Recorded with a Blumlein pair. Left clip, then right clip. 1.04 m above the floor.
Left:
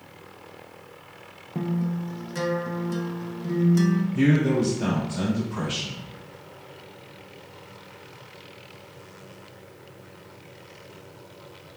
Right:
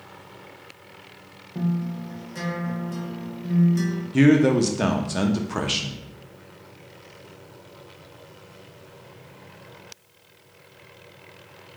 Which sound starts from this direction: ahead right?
A man speaking, at 4.1 s.